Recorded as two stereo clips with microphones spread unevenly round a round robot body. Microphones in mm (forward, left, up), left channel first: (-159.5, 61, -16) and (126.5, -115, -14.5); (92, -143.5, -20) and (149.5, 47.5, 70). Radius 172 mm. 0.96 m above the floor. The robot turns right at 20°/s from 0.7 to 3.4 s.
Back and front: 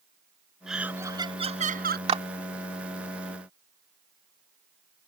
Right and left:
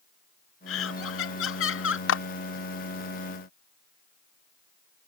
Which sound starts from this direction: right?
A clap, at 2.1 s.